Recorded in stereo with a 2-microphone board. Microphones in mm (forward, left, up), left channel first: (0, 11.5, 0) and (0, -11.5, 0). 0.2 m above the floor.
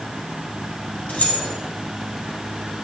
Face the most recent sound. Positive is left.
turn(degrees=75)  # may be behind; listen again after turning